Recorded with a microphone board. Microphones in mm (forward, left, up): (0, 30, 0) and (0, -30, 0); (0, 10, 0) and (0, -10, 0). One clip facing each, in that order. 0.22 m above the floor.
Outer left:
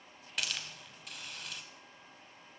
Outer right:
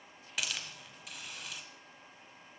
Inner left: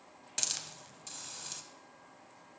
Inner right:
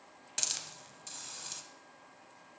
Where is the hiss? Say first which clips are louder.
Even, even; centre (ahead or behind), 0.6 m.